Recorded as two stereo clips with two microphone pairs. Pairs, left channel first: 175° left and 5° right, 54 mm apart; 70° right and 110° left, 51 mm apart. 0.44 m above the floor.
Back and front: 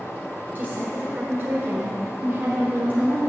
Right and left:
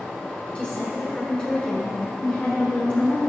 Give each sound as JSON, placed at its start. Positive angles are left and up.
{"t": 0.6, "sound": "a woman speaking", "azimuth_deg": -20, "distance_m": 1.2}